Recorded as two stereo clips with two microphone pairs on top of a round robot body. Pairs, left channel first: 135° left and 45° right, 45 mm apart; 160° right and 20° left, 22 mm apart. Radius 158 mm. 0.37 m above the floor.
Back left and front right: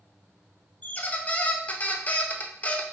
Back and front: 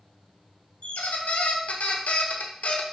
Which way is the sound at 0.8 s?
170° right.